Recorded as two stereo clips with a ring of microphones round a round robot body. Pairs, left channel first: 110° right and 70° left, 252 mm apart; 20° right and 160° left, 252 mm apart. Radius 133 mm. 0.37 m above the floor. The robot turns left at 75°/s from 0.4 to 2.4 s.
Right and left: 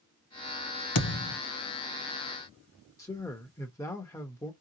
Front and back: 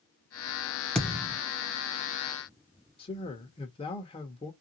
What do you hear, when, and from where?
0.9 s a thud: 110° right, 0.9 m; by 1.4 s 140° right, 0.9 m
3.0 s a man speaking: 50° right, 0.8 m